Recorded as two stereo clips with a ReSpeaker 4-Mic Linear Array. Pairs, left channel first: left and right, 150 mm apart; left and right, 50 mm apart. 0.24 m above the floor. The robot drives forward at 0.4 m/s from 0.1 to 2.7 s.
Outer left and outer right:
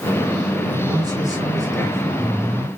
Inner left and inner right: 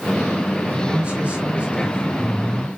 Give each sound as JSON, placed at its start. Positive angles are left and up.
{"t": 0.7, "sound": "a man speaking", "side_deg": -20, "distance_m": 5.0}